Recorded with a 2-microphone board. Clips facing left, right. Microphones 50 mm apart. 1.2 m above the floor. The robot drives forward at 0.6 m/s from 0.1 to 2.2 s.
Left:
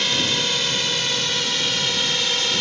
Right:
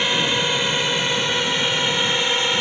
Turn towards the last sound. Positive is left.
turn(degrees=-25)  # may be behind; listen again after turning